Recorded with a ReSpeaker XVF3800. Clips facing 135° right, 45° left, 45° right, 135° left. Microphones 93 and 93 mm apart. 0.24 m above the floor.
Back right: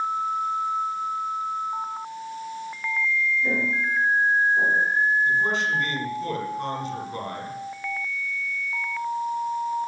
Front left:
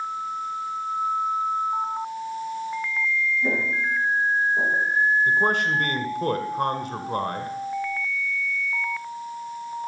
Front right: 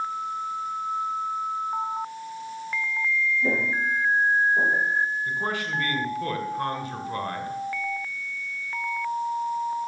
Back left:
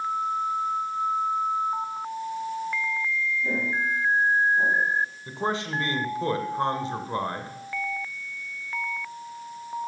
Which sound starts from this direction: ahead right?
Footsteps, at 3.4 s.